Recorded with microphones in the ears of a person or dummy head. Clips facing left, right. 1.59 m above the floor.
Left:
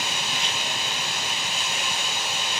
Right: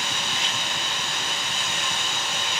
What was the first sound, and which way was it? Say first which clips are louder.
Running water: even; 5° left (ahead or behind).